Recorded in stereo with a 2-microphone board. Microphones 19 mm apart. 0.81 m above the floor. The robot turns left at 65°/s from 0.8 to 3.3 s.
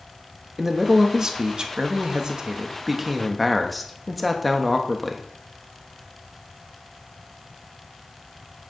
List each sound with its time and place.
0.6 s a man speaking: 20° right, 1.2 m; by 5.3 s 175° left, 1.2 m